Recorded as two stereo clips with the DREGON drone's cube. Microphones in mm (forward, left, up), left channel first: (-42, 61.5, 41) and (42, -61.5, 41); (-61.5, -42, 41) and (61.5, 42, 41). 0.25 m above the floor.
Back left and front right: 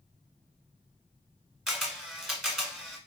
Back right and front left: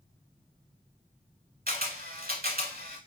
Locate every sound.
1.7 s a camera shutter: 35° left, 1.1 m